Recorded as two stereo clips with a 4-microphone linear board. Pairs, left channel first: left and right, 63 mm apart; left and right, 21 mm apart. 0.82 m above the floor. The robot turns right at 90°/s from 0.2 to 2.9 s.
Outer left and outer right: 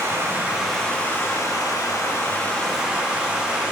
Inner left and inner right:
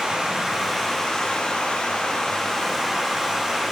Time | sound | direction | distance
0.0 | running water | 50° right | 1.4 m